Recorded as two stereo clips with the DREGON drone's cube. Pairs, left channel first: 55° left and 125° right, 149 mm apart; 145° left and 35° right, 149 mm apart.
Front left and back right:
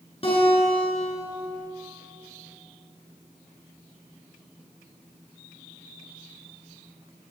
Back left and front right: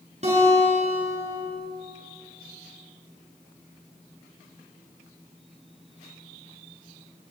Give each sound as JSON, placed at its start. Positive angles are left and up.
{"t": 0.2, "sound": "a guitar", "azimuth_deg": 5, "distance_m": 9.0}